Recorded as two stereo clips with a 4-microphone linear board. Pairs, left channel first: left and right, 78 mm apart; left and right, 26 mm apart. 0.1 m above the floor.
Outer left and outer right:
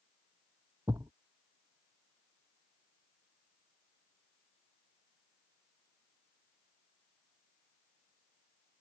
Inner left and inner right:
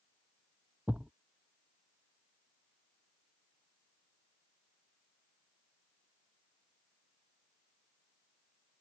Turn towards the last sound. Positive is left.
turn(degrees=-55)  # may be behind; listen again after turning